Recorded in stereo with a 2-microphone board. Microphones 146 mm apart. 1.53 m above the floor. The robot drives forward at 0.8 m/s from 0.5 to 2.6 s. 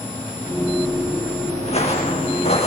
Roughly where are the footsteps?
Left.